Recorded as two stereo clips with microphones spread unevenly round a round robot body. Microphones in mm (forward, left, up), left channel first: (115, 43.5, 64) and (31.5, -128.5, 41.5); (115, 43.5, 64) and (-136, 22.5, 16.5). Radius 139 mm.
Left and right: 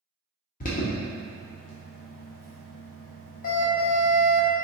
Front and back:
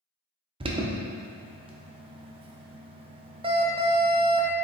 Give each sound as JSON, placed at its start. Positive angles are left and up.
{"t": 0.6, "sound": "an alarm", "azimuth_deg": 120, "distance_m": 0.6}